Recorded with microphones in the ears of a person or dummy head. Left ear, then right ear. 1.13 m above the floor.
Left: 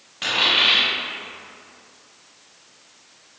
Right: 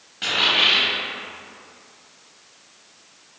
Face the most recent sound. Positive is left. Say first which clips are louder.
# even
turn(degrees=20)  # may be behind; listen again after turning